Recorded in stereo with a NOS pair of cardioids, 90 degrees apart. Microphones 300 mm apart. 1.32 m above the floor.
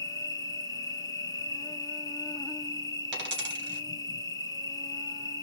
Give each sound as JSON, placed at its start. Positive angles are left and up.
{"t": 0.0, "sound": "an insect", "azimuth_deg": 15, "distance_m": 1.0}
{"t": 3.1, "sound": "a dropped coin", "azimuth_deg": -40, "distance_m": 3.0}